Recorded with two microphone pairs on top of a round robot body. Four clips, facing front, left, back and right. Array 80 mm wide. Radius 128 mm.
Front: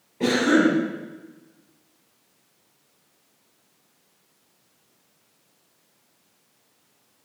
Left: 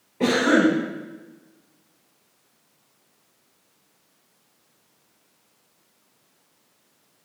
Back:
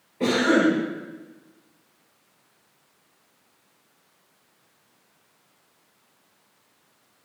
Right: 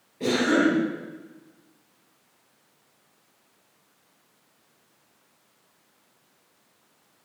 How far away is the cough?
About 8.5 m.